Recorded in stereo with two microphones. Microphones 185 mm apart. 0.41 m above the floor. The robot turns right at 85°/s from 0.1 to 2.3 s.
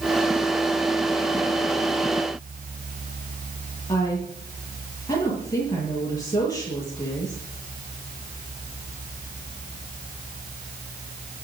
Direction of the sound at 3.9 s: 20° left (ahead or behind).